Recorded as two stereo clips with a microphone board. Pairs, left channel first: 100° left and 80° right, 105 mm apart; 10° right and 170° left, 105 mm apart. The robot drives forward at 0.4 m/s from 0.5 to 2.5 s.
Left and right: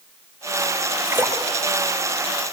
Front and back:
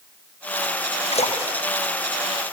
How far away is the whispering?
No whispering in this recording.